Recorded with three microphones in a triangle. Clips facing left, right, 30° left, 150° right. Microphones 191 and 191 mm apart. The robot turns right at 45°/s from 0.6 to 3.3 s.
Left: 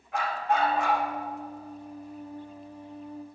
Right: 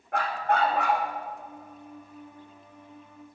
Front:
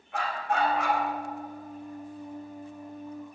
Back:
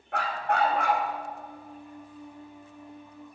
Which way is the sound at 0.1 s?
125° right.